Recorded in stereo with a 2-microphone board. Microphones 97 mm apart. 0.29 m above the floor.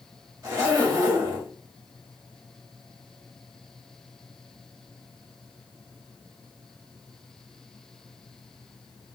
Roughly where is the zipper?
Right.